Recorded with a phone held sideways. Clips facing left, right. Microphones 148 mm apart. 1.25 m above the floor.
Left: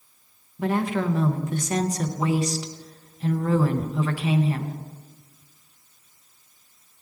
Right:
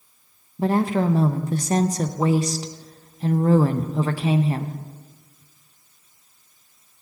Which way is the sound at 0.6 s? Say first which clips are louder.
Right 4 dB; 35° right (ahead or behind).